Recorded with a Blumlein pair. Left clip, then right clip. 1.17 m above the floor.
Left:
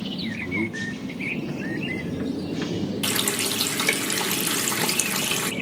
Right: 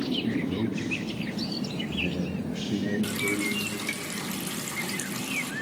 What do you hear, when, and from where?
0.2 s a man speaking: 15° left, 1.8 m; by 4.0 s 40° right, 3.5 m
3.0 s a running tap: 30° left, 0.7 m